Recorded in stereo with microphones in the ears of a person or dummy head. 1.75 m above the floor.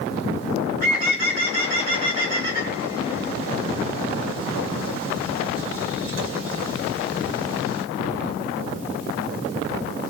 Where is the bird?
50° right (ahead or behind), 1.9 m.